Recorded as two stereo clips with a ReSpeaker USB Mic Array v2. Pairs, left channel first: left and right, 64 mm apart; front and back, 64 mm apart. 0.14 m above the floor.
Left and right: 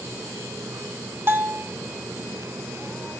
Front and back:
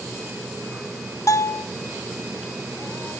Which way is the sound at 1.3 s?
35° right.